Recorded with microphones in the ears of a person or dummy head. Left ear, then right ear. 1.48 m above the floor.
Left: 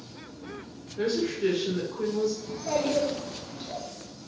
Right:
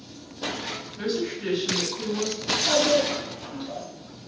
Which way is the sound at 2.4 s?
15° left (ahead or behind).